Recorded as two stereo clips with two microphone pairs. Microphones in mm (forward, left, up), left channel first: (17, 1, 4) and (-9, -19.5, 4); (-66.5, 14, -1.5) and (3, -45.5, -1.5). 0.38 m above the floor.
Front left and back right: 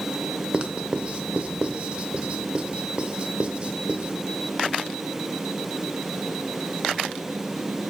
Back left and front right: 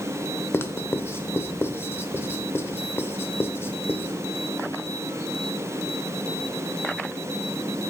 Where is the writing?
175° right, 0.7 m.